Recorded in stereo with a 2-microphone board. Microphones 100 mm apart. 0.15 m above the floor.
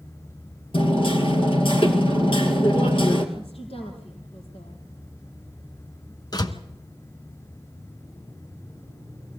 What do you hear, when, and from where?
0.7 s hammering: 60° left (ahead or behind), 2.5 m
3.4 s a woman speaking: 75° left (ahead or behind), 4.5 m
6.3 s a door slam: 45° left (ahead or behind), 1.4 m